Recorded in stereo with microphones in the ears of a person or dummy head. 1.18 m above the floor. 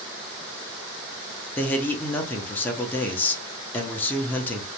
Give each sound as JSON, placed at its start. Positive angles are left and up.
{"t": 1.6, "sound": "a man speaking", "side_deg": 20, "distance_m": 0.6}